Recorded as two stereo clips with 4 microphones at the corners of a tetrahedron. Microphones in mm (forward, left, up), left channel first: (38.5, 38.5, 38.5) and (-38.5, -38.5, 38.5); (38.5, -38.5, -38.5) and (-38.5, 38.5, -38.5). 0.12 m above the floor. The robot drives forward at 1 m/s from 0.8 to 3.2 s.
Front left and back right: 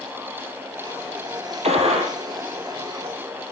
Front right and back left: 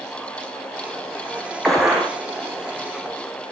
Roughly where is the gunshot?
Behind right.